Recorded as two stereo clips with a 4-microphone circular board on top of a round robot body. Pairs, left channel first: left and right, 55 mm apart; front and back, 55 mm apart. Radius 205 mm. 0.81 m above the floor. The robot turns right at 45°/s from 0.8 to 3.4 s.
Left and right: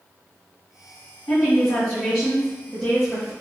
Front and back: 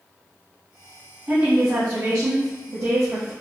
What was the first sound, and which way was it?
A woman speaking, 120° left.